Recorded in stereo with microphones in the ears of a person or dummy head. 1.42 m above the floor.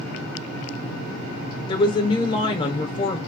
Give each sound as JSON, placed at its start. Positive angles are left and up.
{"t": 1.7, "sound": "a woman speaking", "side_deg": 30, "distance_m": 1.0}